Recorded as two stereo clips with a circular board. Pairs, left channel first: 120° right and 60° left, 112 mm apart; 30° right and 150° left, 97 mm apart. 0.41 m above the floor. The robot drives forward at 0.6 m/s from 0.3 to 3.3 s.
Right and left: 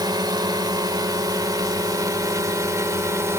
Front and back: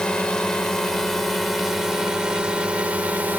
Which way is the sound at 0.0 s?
45° left.